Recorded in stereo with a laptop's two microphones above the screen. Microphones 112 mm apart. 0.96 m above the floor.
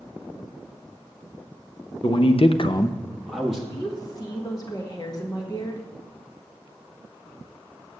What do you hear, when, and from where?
2.0 s a man speaking: 45° left (ahead or behind), 1.0 m; by 3.6 s 5° right (ahead or behind), 1.4 m
3.7 s a woman speaking: 35° left (ahead or behind), 1.4 m